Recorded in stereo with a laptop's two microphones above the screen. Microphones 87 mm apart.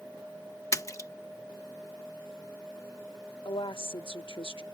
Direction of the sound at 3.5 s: 70° left (ahead or behind).